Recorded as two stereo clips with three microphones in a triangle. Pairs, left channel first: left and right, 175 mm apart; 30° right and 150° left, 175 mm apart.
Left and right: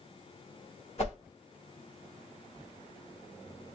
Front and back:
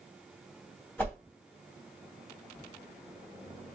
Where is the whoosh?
45° left, 1.2 m.